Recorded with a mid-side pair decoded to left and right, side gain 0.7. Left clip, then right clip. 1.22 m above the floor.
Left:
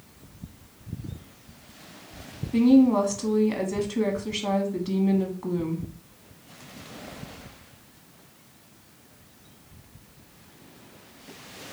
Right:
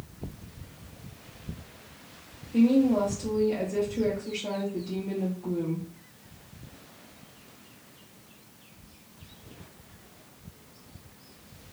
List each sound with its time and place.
2.5 s a woman speaking: 70° left, 1.2 m